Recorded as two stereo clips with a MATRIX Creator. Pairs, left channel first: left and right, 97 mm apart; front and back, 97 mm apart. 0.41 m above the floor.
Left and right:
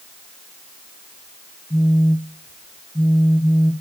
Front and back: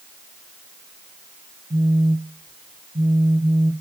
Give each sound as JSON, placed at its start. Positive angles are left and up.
{"t": 1.7, "sound": "a phone buzzing", "azimuth_deg": 160, "distance_m": 1.0}